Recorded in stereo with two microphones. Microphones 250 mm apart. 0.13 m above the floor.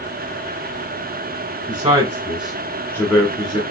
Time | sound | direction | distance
1.7 | a man speaking | 20° right (ahead or behind) | 1.7 m